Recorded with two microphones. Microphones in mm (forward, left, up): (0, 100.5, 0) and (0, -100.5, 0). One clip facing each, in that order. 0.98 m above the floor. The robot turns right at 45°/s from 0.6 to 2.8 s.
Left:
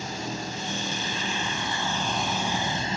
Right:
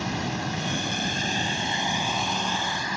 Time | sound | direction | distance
0.0 | running water | 75° right | ?